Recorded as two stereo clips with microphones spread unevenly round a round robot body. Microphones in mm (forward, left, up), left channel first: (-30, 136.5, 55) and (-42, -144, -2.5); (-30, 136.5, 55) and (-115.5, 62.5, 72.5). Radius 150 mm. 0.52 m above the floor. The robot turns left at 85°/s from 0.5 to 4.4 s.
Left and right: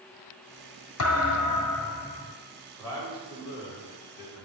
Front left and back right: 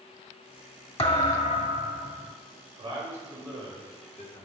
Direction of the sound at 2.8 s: Straight behind.